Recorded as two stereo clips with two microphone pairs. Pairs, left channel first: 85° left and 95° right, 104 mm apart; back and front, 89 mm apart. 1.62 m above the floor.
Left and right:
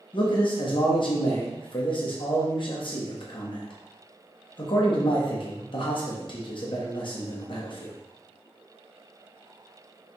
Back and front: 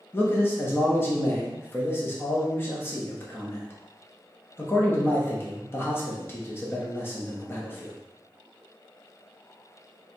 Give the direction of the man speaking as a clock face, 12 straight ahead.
8 o'clock.